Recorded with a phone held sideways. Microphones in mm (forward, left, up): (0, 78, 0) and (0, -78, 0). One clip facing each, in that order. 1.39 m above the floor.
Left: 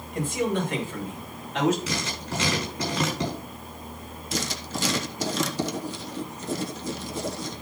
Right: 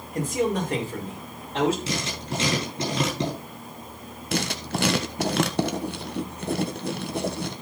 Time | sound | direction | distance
0.1 | a man speaking | 45° right (ahead or behind) | 5 m
1.9 | writing | 30° right (ahead or behind) | 9 m
4.3 | writing | 65° right (ahead or behind) | 1.4 m